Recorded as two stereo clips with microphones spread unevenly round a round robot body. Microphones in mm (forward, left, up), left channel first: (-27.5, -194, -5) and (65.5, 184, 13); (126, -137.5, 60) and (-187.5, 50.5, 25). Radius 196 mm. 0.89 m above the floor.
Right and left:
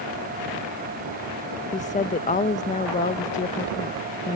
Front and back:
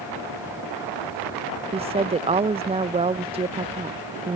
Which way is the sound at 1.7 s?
155° right.